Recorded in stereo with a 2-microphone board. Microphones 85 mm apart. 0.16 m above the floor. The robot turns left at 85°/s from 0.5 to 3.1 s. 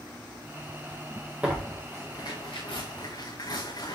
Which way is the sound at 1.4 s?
15° right (ahead or behind).